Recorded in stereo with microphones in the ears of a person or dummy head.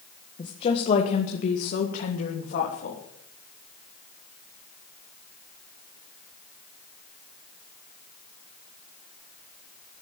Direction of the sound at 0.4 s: 30° left (ahead or behind).